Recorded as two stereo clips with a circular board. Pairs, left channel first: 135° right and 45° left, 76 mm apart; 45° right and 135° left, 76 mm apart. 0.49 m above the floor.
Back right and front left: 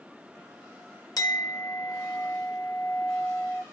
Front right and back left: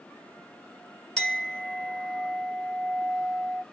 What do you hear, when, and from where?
1.2 s a clink: 125° right, 1.3 m